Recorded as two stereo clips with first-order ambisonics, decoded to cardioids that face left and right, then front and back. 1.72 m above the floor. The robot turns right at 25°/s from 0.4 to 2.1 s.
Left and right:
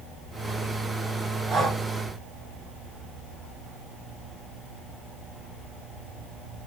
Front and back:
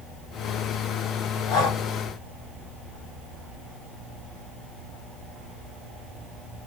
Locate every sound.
1.5 s breathing: 15° right, 4 m; by 1.8 s 5° right, 4 m